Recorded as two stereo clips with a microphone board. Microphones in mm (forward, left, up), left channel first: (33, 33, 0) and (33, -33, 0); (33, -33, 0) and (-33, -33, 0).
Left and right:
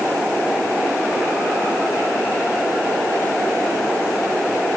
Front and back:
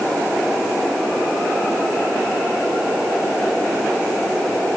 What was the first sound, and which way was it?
Only background noise.